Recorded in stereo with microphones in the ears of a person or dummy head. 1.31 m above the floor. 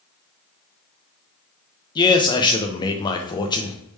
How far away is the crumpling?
I don't hear crumpling.